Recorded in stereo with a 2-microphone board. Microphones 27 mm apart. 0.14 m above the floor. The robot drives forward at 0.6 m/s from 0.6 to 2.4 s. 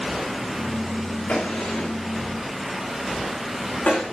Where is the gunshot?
60° left (ahead or behind), 5.5 m; by 4.0 s 65° left (ahead or behind), 5 m.